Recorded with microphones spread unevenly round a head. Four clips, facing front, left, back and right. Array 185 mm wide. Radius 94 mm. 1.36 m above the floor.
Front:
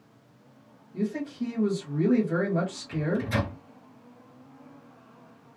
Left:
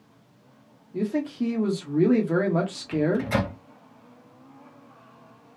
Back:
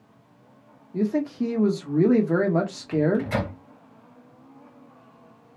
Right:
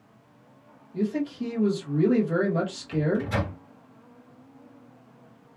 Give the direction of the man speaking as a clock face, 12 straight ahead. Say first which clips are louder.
Left 1 dB, back 6 dB; 7 o'clock.